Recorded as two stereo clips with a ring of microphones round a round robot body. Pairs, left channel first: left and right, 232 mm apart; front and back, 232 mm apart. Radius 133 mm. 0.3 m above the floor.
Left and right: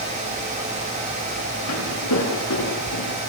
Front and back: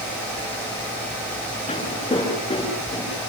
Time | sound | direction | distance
1.7 | footsteps | 70° left | 8 m